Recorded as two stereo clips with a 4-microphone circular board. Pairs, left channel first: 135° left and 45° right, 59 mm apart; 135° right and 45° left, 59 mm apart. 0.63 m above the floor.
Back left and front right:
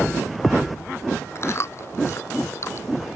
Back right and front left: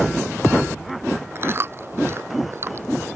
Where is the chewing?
95° left.